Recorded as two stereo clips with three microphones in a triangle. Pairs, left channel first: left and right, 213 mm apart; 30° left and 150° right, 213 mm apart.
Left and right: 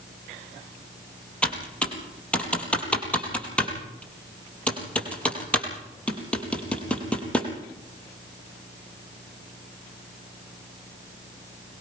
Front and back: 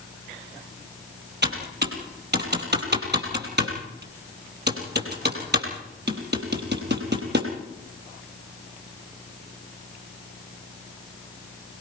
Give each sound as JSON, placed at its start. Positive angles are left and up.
{"t": 1.4, "sound": "typing on a keyboard", "azimuth_deg": 175, "distance_m": 4.5}